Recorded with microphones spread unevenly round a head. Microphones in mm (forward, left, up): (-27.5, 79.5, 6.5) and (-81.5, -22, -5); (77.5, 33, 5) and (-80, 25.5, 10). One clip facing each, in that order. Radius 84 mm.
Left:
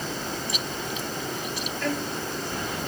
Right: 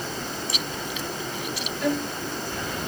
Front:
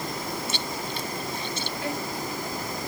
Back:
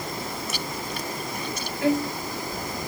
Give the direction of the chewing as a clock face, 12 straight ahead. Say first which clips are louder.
Even, even; 2 o'clock.